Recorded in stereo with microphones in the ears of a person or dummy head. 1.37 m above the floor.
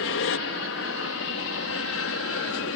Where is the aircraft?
60° left (ahead or behind); by 2.8 s 65° left (ahead or behind).